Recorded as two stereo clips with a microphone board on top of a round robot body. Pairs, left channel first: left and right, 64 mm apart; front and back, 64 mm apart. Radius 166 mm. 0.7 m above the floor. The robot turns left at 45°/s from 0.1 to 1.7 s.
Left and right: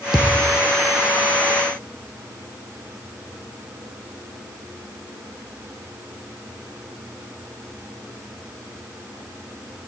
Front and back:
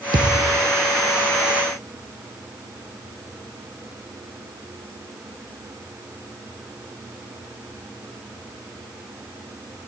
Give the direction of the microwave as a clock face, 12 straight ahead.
I don't hear a microwave.